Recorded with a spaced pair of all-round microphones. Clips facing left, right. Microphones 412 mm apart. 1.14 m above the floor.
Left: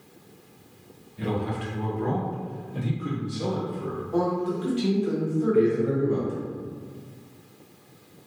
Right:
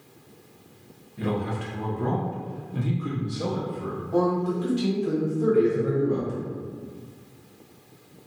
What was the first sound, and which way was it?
A man speaking, 70° right (ahead or behind).